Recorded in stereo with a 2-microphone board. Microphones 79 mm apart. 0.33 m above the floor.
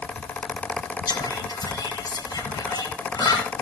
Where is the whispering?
60° left (ahead or behind), 3.5 m.